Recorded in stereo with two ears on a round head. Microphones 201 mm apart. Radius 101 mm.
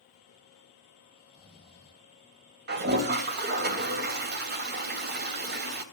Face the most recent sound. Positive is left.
turn(degrees=-50)  # may be behind; listen again after turning